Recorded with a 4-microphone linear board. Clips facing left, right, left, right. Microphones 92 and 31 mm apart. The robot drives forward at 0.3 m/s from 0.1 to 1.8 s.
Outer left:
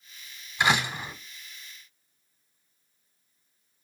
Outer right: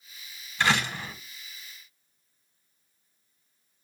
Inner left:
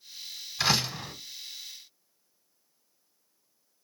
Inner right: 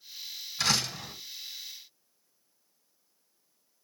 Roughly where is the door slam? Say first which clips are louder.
Outer left 1 dB, inner left 2 dB; centre.